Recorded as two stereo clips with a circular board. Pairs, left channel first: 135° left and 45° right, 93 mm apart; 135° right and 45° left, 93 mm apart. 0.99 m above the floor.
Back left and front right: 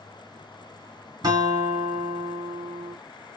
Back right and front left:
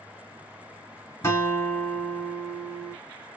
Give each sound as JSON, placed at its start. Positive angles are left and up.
{"t": 1.2, "sound": "a guitar", "azimuth_deg": -80, "distance_m": 1.4}